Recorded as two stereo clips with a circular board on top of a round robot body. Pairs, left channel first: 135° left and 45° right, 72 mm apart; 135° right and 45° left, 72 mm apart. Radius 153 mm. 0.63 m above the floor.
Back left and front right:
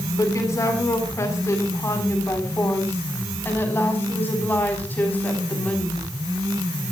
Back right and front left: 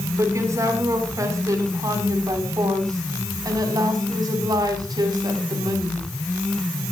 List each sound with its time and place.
0.2 s a woman speaking: 90° left, 8 m; by 6.1 s 65° left, 7 m